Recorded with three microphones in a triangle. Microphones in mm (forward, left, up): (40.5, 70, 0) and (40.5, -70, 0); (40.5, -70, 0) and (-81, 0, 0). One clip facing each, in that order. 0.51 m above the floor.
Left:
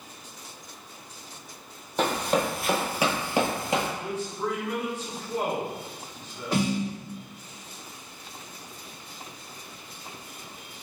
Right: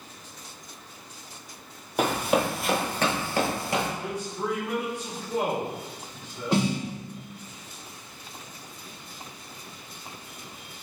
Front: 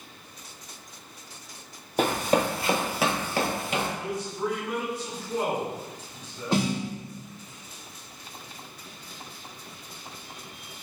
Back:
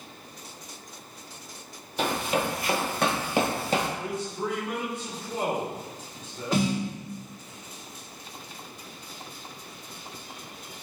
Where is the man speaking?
155° right, 1.2 m.